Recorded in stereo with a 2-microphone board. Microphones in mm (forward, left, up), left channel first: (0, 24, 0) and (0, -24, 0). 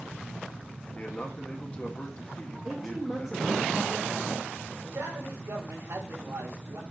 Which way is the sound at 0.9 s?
25° left (ahead or behind).